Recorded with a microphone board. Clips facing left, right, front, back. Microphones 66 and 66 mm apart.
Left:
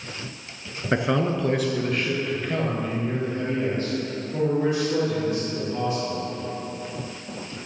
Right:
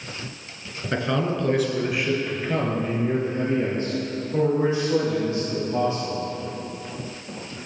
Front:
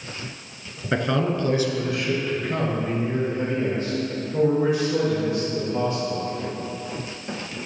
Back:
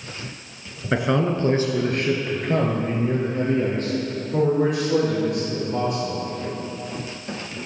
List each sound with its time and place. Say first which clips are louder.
0.9 s a man speaking: left 2 dB, back 2 dB; 105° left, 1.1 m; by 6.2 s 150° right, 5.5 m